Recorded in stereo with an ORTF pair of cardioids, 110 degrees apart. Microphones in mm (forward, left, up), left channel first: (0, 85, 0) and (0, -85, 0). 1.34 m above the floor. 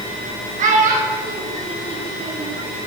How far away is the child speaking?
About 1.6 m.